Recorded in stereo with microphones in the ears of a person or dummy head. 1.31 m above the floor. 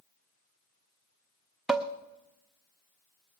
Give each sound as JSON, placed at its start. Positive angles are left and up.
{"t": 1.7, "sound": "dishes clattering", "side_deg": 0, "distance_m": 0.5}